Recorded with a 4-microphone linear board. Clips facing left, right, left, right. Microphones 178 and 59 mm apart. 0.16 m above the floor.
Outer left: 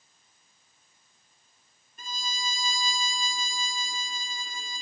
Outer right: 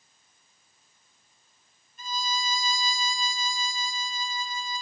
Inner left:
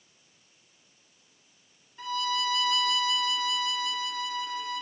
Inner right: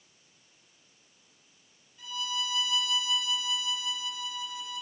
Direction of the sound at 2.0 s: 55° left (ahead or behind).